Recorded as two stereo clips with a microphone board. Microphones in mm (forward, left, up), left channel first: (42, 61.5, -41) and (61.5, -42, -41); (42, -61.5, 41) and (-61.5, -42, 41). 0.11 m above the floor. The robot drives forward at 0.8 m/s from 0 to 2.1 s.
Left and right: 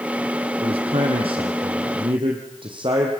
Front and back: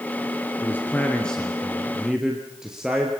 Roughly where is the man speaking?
Right.